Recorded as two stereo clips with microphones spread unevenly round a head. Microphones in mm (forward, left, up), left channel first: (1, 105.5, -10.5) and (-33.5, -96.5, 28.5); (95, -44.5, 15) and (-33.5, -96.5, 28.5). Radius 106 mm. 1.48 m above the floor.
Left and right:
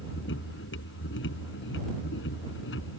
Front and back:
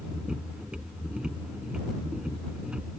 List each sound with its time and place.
0.0 s a machine running: 115° left